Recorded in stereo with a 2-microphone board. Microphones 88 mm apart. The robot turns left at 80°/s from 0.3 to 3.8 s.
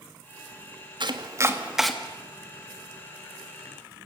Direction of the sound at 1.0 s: 60° right (ahead or behind).